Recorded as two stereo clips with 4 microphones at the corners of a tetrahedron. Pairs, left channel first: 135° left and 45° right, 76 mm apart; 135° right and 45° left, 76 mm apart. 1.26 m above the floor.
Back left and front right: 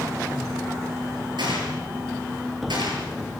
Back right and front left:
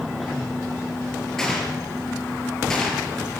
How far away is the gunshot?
About 7.5 m.